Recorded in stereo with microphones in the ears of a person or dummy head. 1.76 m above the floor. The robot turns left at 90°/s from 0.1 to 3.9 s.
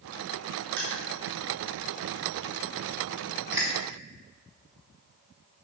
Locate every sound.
0.8 s crushing: 60° right (ahead or behind), 3.5 m; by 3.7 s 20° right (ahead or behind), 3.5 m